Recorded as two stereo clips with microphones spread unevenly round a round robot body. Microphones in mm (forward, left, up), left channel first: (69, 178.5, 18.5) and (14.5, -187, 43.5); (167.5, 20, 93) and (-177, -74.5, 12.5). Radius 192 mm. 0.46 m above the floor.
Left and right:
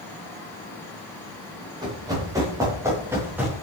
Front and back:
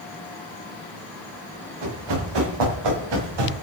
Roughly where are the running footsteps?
Behind.